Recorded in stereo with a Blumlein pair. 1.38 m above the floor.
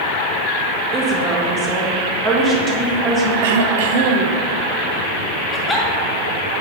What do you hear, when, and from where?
0.9 s a woman speaking: 30° right, 2.5 m
3.4 s throat clearing: 50° right, 0.8 m
5.5 s a giggle: 5° left, 2 m